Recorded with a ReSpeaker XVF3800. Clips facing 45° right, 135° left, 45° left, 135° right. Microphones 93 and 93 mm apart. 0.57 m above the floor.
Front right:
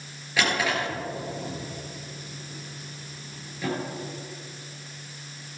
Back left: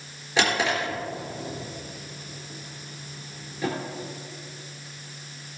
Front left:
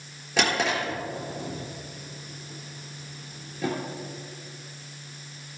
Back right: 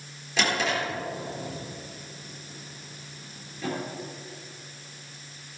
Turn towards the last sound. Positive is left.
turn(degrees=70)